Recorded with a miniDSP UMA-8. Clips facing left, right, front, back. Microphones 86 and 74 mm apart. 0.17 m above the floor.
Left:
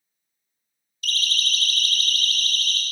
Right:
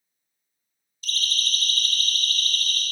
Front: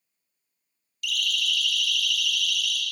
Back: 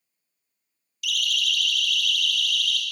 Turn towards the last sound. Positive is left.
turn(degrees=80)